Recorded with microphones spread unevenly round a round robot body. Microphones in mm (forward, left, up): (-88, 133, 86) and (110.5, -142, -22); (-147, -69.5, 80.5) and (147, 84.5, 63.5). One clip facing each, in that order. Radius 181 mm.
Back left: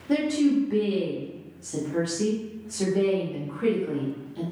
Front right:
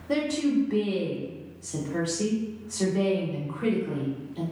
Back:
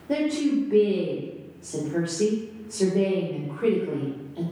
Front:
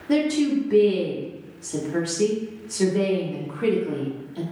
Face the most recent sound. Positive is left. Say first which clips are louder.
# back left 3 dB, front 3 dB
turn(degrees=35)